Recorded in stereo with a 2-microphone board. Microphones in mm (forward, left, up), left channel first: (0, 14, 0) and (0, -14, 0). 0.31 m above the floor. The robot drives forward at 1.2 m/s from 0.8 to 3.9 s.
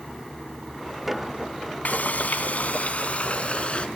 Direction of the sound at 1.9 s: 65° left (ahead or behind).